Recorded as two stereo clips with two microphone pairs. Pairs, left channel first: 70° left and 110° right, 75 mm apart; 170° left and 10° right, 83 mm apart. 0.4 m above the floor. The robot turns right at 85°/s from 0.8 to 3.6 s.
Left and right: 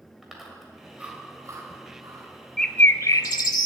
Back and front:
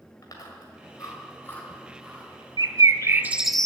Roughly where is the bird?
Ahead.